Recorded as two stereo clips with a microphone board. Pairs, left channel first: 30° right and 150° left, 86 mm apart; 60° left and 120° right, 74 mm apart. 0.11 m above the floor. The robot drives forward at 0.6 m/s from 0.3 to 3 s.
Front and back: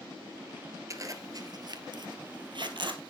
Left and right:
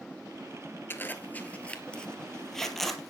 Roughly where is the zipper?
Behind left.